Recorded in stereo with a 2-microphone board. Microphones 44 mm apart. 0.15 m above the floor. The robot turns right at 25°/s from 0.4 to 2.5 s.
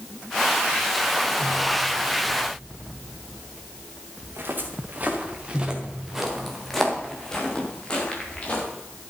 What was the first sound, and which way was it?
Footsteps, 50° right (ahead or behind).